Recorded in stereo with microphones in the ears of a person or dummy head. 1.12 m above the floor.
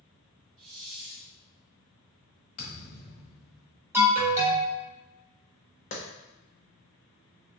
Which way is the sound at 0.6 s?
75° right (ahead or behind).